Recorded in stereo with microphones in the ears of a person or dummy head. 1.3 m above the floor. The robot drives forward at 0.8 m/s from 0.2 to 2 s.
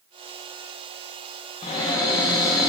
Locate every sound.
1.6 s a cupboard door: 20° left (ahead or behind), 0.6 m; by 2.7 s 15° left (ahead or behind), 0.7 m